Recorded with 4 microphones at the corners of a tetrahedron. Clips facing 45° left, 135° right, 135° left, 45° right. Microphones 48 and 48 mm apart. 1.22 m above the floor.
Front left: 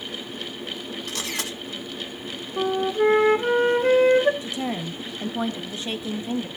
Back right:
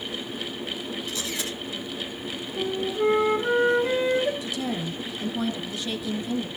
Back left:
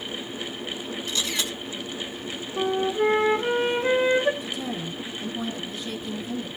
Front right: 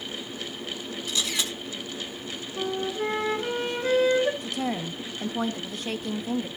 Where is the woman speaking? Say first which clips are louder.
Front left 1 dB, front right 2 dB; 15° right, 1.3 m.